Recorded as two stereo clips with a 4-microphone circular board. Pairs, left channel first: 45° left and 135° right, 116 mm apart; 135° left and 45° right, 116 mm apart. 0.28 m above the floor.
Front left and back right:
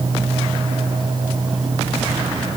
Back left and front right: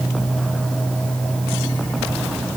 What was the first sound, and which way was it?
Only background noise.